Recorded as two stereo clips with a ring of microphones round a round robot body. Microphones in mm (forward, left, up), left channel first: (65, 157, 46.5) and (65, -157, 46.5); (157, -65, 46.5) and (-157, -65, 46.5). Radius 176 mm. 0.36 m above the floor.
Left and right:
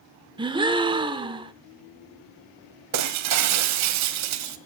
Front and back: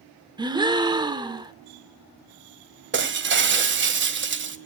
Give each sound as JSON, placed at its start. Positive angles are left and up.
{"t": 0.4, "sound": "a gasp", "azimuth_deg": -130, "distance_m": 1.1}
{"t": 2.9, "sound": "breaking glass", "azimuth_deg": -125, "distance_m": 1.4}